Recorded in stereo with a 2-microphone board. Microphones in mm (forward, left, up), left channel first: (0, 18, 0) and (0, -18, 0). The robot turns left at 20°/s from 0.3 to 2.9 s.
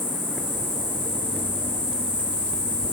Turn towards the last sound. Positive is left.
turn(degrees=40)